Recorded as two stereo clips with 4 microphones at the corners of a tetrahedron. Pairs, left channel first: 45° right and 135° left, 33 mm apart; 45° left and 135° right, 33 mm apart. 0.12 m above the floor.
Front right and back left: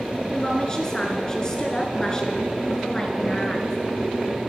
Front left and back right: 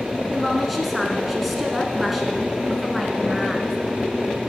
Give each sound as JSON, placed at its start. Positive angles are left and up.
{"t": 0.3, "sound": "a woman speaking", "azimuth_deg": -50, "distance_m": 1.3}